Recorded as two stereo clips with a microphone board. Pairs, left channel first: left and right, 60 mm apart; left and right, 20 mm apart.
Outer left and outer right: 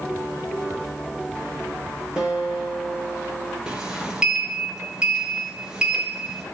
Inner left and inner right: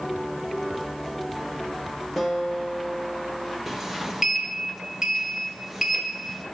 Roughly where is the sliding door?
Centre.